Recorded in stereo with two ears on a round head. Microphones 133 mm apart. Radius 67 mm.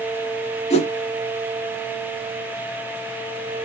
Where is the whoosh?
40° left (ahead or behind), 0.7 m.